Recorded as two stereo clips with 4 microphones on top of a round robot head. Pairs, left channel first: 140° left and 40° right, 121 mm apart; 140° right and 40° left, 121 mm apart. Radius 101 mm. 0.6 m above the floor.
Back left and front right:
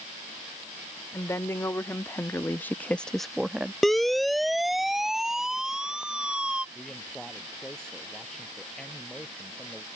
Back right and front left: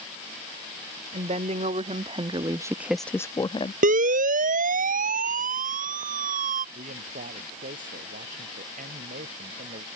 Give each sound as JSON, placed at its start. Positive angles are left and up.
{"t": 1.1, "sound": "a woman speaking", "azimuth_deg": 70}
{"t": 3.8, "sound": "a siren", "azimuth_deg": 50}
{"t": 6.8, "sound": "a man speaking", "azimuth_deg": 55}